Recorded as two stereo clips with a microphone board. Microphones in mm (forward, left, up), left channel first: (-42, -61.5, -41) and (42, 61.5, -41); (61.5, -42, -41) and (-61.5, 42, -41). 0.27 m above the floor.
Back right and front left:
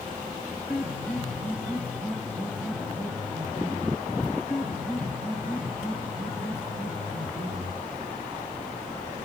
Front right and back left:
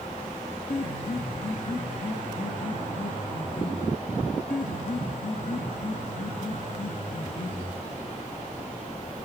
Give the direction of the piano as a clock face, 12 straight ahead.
1 o'clock.